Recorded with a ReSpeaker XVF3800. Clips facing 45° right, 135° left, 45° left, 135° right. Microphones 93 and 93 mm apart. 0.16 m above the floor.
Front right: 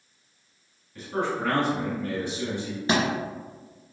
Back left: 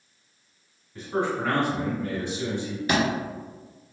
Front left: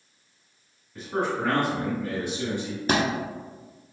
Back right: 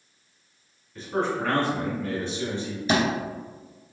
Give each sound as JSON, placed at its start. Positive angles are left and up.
{"t": 0.9, "sound": "a man speaking", "azimuth_deg": 105, "distance_m": 1.4}
{"t": 2.9, "sound": "a thud", "azimuth_deg": 15, "distance_m": 1.0}